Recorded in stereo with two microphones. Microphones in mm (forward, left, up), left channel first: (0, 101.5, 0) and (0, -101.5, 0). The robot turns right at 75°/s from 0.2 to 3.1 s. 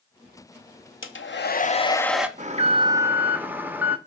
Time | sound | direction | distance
1.0 | a hair dryer | 95° left | 0.7 m
2.4 | an alarm | 70° right | 0.8 m